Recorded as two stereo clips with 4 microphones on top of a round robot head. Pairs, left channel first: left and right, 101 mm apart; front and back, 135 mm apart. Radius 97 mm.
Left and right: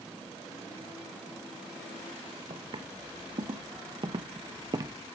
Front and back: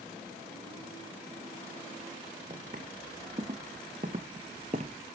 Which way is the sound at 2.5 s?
120° right.